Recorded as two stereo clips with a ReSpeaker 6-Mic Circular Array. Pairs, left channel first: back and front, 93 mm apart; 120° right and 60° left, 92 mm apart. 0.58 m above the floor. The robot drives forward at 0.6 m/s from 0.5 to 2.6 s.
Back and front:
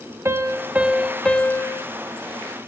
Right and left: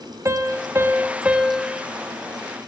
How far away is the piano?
About 0.8 m.